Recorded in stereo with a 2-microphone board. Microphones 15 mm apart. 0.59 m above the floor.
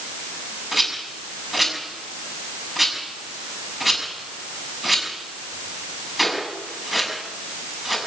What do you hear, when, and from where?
0.7 s a rattle: 10° right (ahead or behind), 6 m